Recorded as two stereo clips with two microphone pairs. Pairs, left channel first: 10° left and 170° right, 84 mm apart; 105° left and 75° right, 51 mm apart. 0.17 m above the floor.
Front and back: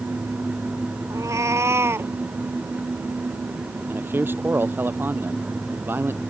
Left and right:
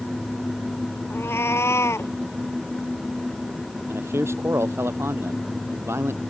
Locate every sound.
1.1 s a cat meowing: 140° left; by 2.1 s 130° left
3.9 s a man speaking: 105° right